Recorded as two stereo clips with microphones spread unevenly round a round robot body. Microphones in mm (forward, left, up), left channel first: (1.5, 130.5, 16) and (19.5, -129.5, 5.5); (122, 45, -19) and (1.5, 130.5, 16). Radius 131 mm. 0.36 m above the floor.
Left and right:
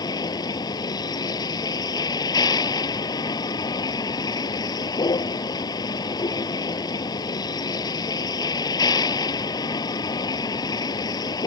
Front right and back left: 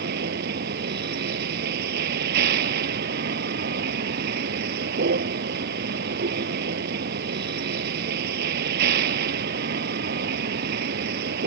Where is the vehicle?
170° left.